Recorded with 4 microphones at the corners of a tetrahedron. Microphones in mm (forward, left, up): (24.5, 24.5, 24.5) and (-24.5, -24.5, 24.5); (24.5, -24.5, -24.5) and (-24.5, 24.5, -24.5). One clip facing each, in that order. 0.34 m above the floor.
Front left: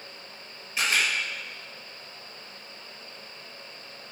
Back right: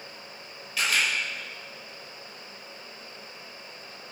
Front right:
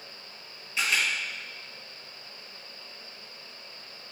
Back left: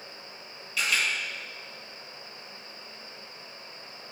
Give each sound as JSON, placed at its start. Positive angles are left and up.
{"t": 0.8, "sound": "a camera shutter", "azimuth_deg": -5, "distance_m": 1.3}